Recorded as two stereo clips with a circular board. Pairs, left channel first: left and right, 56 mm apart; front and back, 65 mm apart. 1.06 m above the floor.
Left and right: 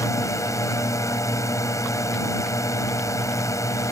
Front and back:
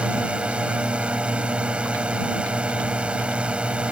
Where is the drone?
105° left.